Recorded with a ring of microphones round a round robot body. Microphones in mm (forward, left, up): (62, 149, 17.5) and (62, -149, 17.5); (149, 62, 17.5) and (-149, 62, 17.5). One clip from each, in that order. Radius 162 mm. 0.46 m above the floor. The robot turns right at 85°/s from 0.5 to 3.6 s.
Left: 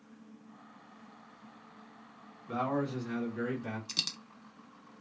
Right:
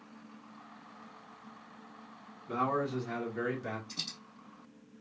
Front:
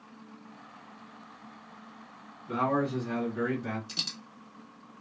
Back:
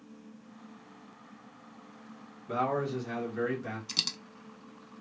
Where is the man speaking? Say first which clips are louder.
Right 2 dB, front 2 dB; 150° left, 1.3 m; by 3.8 s 115° right, 1.3 m.